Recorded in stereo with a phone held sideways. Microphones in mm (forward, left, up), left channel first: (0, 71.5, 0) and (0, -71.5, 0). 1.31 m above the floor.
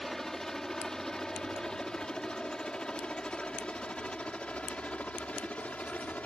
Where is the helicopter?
5° left (ahead or behind); by 6.3 s 10° left (ahead or behind).